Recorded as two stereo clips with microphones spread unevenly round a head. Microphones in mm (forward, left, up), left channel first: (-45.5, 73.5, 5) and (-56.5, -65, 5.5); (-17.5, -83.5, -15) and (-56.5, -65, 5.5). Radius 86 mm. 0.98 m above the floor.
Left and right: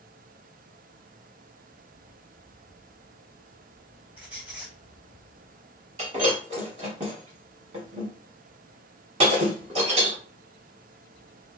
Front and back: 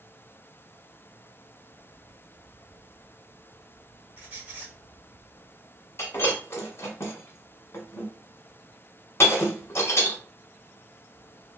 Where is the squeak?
175° right, 1.5 m.